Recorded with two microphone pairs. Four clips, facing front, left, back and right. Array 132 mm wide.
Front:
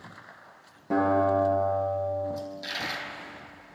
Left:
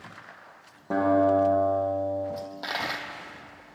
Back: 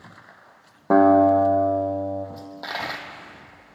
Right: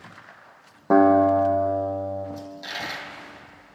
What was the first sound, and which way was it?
A guitar, 145° right.